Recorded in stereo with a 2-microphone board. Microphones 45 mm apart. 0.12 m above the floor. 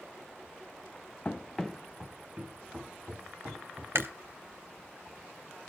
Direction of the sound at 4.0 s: 60° right (ahead or behind).